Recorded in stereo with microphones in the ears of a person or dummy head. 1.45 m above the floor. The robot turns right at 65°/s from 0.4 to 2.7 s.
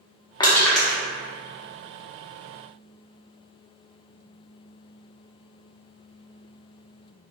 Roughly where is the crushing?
Left.